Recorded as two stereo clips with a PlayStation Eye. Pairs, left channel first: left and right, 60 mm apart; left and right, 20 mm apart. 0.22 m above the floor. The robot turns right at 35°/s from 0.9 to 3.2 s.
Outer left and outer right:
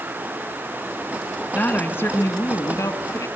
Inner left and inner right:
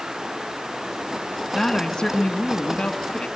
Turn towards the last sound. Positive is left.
turn(degrees=90)